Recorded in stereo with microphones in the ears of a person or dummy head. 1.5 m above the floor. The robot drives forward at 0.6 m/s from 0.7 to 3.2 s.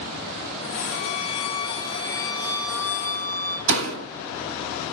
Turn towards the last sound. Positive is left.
turn(degrees=-65)  # may be behind; listen again after turning